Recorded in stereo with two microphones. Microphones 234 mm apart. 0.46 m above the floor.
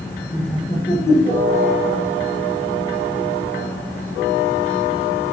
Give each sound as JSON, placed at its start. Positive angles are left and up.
{"t": 0.3, "sound": "laughter", "side_deg": 25, "distance_m": 1.1}